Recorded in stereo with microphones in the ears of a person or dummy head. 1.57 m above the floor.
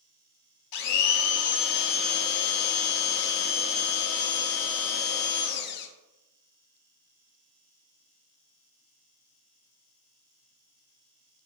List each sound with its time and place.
0.7 s a blender: 65° left (ahead or behind), 0.6 m